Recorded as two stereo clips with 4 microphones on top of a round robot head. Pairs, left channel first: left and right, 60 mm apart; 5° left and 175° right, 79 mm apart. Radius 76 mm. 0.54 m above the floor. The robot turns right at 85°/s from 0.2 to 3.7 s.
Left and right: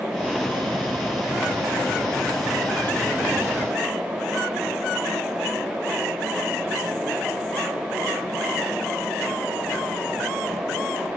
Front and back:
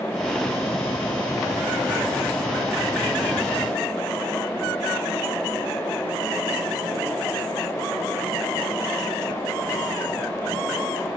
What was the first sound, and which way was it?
Only background noise.